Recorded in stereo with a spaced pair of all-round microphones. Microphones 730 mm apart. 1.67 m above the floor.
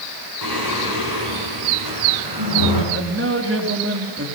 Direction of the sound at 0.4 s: 30° right (ahead or behind).